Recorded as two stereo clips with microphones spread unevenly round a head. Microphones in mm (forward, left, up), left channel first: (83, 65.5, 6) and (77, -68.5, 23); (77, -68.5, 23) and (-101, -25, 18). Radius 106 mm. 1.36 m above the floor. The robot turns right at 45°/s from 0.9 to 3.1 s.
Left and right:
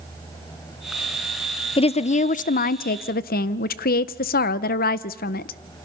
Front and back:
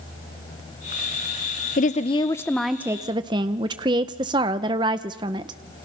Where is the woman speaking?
35° left, 0.5 m; by 5.6 s 95° left, 0.5 m.